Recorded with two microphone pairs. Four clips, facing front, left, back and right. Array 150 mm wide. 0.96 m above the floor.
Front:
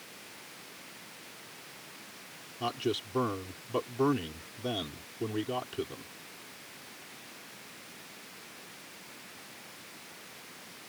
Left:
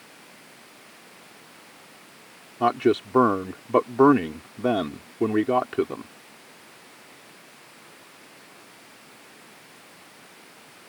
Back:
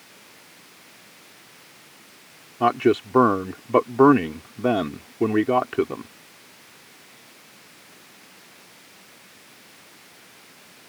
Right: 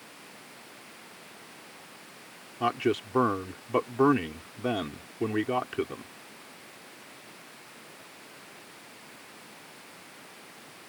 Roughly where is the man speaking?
Behind left.